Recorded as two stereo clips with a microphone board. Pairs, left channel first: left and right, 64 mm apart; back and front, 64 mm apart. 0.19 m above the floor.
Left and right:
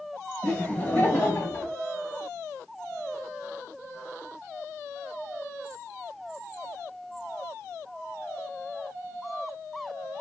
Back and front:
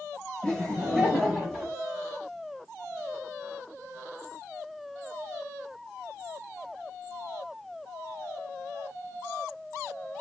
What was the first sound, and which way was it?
Laughter, 120° left.